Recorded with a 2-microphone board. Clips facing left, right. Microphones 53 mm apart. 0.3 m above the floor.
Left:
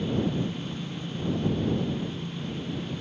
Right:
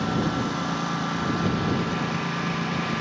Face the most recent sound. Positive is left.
turn(degrees=-80)